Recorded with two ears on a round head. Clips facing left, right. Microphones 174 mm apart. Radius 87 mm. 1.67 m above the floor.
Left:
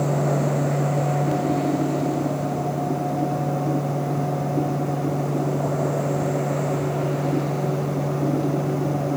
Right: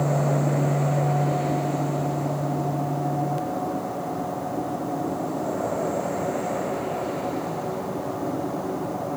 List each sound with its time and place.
Only background noise.